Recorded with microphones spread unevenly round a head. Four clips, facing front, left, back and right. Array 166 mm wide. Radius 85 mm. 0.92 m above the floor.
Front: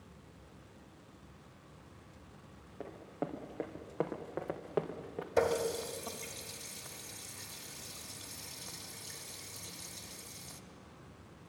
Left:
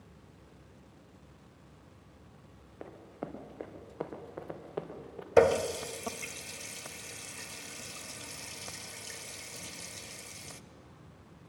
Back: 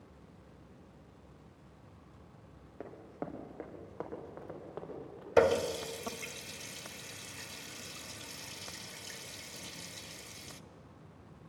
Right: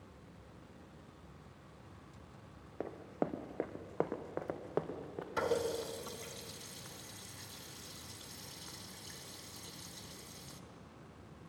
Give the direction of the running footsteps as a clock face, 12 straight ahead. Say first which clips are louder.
Right 5 dB, front 2 dB; 3 o'clock.